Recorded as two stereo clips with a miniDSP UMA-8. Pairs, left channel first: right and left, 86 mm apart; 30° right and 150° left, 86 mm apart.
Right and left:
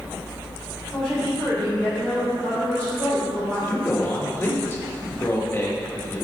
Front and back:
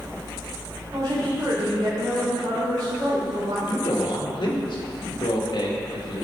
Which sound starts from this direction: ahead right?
A man speaking, at 3.7 s.